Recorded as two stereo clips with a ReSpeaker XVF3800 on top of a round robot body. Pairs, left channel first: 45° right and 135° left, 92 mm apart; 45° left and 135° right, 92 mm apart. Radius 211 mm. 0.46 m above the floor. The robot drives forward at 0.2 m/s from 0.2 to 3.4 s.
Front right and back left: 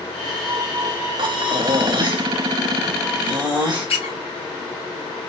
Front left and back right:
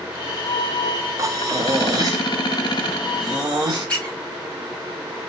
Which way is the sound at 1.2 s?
170° left.